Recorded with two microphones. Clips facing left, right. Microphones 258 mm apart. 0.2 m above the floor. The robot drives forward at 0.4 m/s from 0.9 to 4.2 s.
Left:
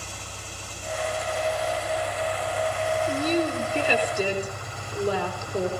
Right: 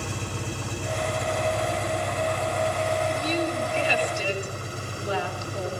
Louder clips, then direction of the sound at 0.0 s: Right 10 dB; 65° right (ahead or behind).